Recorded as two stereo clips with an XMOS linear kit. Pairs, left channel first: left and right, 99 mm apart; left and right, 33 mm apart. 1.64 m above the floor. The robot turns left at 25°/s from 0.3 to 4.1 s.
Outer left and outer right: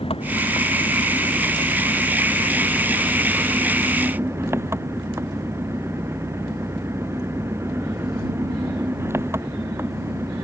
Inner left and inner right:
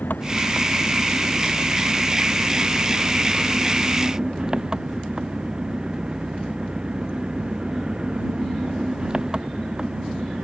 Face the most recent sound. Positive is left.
turn(degrees=-25)